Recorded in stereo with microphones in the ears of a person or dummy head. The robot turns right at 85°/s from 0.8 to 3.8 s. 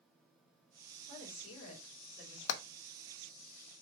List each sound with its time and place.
1.1 s a woman speaking: 60° left, 2.5 m; by 2.4 s 170° left, 2.5 m
2.5 s hammering: 75° left (ahead or behind), 0.7 m; by 2.6 s 80° left, 0.7 m